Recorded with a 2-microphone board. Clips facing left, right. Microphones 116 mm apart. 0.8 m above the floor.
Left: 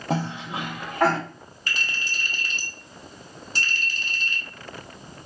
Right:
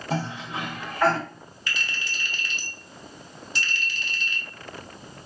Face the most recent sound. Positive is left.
turn(degrees=35)  # may be behind; listen again after turning